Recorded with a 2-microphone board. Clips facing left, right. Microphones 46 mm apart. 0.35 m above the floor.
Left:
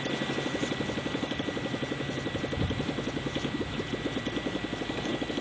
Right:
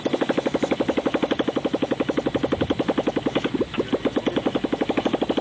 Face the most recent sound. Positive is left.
turn(degrees=-60)  # may be behind; listen again after turning